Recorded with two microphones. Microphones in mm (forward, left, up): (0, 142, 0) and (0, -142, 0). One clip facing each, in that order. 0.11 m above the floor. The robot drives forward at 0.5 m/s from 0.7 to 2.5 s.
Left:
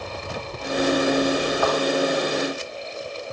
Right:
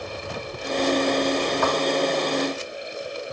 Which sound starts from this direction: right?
A thud, at 1.6 s.